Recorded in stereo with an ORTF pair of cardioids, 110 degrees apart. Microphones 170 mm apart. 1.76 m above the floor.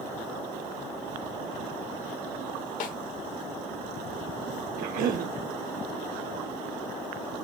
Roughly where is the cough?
Ahead right.